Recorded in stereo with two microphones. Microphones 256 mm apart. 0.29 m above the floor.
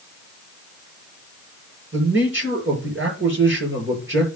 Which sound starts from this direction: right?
A man speaking, at 1.9 s.